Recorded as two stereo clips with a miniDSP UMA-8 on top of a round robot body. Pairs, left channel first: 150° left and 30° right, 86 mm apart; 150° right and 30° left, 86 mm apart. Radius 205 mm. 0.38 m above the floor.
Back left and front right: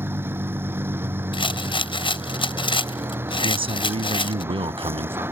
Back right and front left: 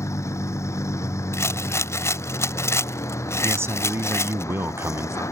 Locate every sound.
0.0 s a vehicle: 95° right
1.3 s a rattle: 155° left
3.4 s a man speaking: 30° right